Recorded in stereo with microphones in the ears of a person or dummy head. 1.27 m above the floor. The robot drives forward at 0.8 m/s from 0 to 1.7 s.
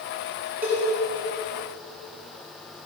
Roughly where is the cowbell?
Centre.